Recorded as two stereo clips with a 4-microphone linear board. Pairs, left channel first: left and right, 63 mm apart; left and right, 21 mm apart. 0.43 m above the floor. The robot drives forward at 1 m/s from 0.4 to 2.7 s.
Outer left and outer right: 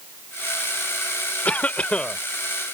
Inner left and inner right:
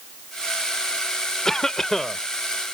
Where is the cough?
25° left (ahead or behind); by 2.2 s 15° left (ahead or behind).